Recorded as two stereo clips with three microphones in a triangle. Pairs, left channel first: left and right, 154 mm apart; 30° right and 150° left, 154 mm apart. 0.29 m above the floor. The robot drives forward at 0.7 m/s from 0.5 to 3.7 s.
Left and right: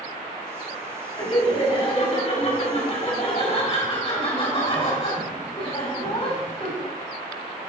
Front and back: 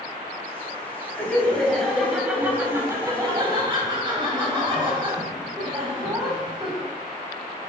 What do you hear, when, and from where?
1.2 s laughter: 45° left, 2 m; by 6.9 s 115° left, 1.9 m